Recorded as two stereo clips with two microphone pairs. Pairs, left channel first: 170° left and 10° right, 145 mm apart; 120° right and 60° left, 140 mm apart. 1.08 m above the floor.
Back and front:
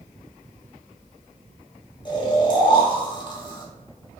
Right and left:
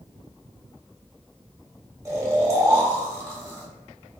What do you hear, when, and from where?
2.0 s snoring: 120° left, 0.7 m